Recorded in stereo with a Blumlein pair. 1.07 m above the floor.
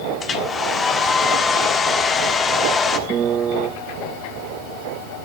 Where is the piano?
25° right, 0.8 m.